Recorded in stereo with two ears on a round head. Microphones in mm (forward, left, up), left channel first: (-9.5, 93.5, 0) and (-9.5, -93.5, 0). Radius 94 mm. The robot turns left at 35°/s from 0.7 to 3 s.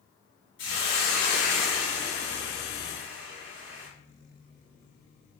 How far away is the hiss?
About 1.9 m.